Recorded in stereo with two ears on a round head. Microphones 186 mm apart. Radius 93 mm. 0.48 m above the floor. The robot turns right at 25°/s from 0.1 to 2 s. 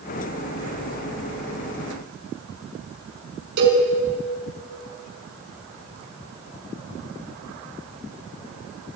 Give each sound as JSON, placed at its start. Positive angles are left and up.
{"t": 3.6, "sound": "a cowbell", "side_deg": -50, "distance_m": 7.0}